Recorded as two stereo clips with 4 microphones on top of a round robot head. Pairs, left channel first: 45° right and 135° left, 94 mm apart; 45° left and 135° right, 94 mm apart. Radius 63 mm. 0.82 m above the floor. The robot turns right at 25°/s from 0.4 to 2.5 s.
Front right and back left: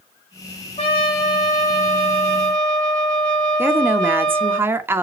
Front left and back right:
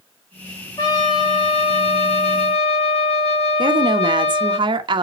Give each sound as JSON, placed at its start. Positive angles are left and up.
{"t": 0.8, "sound": "a trumpet", "azimuth_deg": -10, "distance_m": 4.0}
{"t": 3.6, "sound": "a woman speaking", "azimuth_deg": -160, "distance_m": 1.1}